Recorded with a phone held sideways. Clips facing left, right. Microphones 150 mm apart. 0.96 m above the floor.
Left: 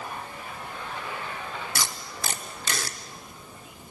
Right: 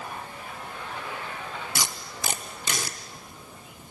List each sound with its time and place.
1.8 s tape being pulled: 15° right (ahead or behind), 0.8 m